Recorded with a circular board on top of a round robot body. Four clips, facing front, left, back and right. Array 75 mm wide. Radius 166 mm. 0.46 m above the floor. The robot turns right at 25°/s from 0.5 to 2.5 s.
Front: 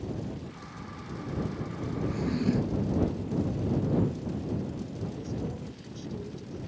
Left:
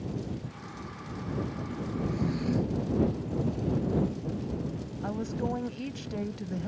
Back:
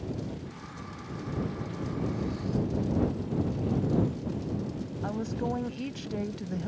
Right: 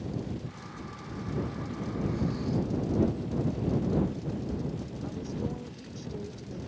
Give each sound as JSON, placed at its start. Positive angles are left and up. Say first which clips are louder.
{"t": 2.1, "sound": "a drawer", "louder": "left 2 dB, front 4 dB", "azimuth_deg": 15}
{"t": 5.0, "sound": "a woman speaking", "louder": "left 5 dB, back 6 dB", "azimuth_deg": 140}